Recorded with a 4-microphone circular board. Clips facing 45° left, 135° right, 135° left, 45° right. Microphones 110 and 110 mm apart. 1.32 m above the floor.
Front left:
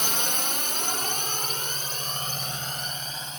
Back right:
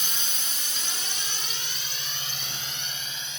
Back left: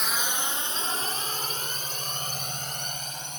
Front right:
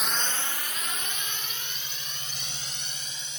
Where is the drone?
40° left; by 3.4 s 95° left.